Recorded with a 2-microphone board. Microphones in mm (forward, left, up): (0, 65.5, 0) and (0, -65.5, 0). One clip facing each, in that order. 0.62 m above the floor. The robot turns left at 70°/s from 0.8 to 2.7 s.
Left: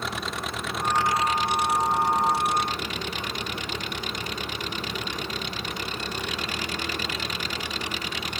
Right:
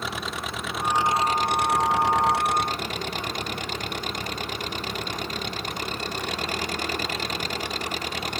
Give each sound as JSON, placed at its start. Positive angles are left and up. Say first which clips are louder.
{"t": 0.0, "sound": "an engine running", "louder": "even", "azimuth_deg": -5}